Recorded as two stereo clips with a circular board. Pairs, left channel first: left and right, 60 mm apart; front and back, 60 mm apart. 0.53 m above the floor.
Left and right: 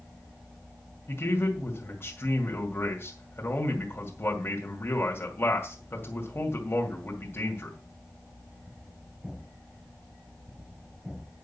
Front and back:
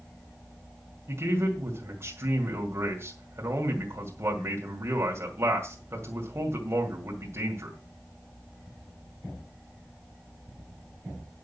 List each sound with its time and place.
1.1 s a man speaking: 140° left, 2 m